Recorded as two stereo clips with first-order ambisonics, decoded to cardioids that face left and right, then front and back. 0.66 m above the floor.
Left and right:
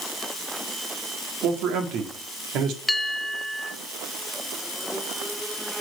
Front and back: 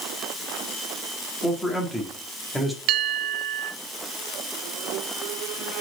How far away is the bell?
About 0.7 m.